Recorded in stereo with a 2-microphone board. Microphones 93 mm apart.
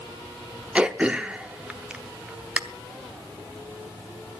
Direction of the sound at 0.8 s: 10° right (ahead or behind).